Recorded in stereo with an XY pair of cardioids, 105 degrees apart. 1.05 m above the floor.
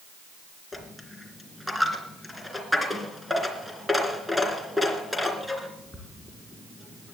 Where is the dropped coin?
5° left, 3 m.